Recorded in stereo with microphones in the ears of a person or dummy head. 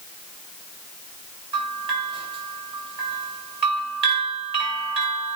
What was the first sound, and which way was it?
A bell, 30° right (ahead or behind).